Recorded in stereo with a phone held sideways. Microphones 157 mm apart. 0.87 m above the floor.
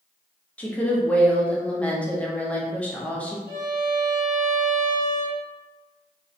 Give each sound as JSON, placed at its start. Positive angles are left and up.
{"t": 0.6, "sound": "a woman speaking", "side_deg": 10, "distance_m": 0.5}
{"t": 3.5, "sound": "a violin", "side_deg": -25, "distance_m": 0.8}